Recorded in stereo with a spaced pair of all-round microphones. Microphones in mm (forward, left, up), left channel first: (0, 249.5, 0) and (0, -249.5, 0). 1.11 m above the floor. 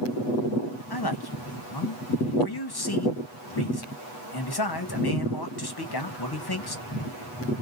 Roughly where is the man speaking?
Left.